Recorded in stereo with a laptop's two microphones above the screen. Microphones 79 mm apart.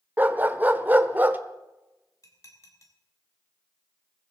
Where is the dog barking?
25° right (ahead or behind), 1.0 m.